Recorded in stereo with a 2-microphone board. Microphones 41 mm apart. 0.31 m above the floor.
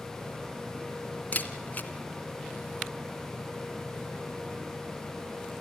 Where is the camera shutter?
40° left (ahead or behind), 2.5 m.